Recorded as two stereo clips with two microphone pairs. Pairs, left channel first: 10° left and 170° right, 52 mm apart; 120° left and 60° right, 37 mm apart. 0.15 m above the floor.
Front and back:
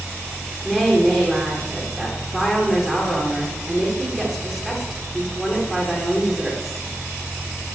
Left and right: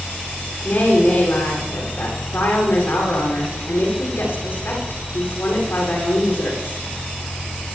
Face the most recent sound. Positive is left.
turn(degrees=105)